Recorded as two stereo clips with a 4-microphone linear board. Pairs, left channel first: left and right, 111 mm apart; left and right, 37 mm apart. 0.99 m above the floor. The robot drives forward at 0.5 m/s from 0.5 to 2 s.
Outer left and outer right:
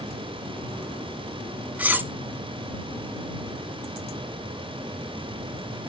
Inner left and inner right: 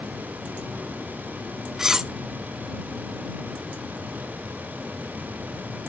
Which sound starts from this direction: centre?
Cutlery clinking, at 1.8 s.